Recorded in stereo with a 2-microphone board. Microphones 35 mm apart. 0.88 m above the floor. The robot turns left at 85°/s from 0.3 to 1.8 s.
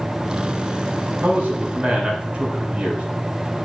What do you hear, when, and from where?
1.2 s a man speaking: 95° right, 3.5 m; by 3.0 s 145° right, 3.5 m